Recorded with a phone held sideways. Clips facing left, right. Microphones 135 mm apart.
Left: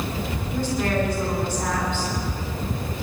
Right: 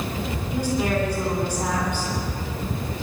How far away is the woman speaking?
About 7 m.